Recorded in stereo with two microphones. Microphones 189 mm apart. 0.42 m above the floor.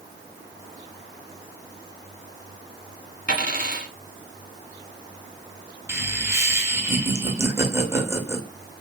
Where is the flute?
I don't hear a flute.